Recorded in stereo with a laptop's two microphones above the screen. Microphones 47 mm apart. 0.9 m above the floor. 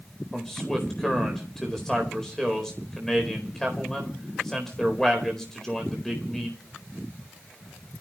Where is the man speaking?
10° left (ahead or behind), 4 m.